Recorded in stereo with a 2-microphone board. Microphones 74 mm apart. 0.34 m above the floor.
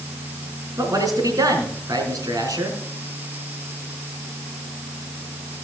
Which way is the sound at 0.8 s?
55° right (ahead or behind).